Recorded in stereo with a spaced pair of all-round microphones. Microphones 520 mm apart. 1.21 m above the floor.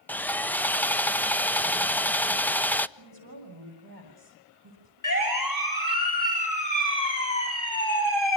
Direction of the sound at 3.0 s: 40° right (ahead or behind).